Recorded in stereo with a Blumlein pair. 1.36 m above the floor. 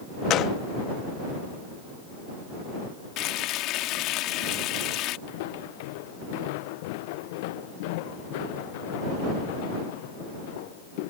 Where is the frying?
35° left.